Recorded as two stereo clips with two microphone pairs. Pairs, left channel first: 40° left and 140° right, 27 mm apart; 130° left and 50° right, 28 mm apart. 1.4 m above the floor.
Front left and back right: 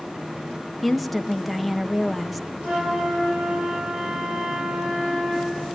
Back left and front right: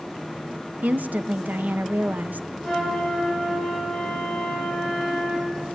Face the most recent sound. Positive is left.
turn(degrees=-140)